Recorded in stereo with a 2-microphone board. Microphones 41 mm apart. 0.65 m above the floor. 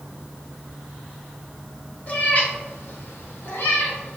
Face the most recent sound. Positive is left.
turn(degrees=65)  # may be behind; listen again after turning